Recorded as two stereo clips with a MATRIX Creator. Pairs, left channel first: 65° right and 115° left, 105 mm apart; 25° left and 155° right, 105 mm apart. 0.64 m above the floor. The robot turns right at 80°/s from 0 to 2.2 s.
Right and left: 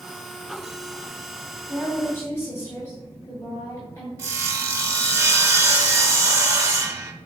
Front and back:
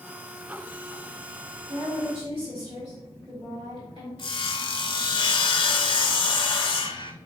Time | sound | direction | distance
1.7 | a woman speaking | 170° right | 2 m
4.2 | sawing | 55° left | 0.5 m